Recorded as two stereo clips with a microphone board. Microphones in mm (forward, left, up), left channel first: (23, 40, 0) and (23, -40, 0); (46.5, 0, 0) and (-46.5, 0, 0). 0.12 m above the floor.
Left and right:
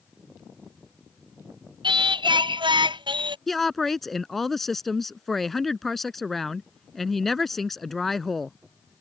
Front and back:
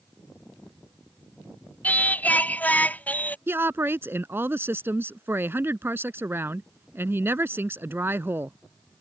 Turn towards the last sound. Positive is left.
turn(degrees=175)